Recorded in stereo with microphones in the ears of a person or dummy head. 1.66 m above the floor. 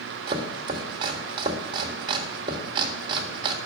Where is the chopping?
30° right (ahead or behind), 1.7 m.